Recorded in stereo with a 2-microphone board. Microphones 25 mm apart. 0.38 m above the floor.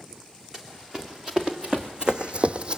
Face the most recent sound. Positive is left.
turn(degrees=-40)  # may be behind; listen again after turning